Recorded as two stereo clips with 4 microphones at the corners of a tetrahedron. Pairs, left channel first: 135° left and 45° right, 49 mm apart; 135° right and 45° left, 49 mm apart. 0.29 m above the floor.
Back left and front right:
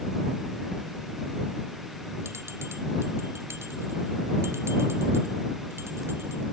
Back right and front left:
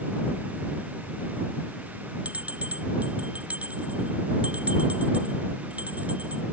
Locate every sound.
2.2 s a bell: 15° right